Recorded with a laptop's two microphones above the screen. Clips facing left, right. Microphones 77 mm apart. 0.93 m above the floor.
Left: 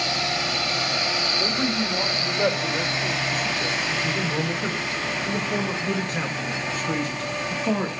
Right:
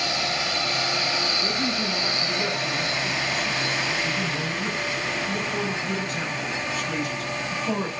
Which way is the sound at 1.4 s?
75° left (ahead or behind).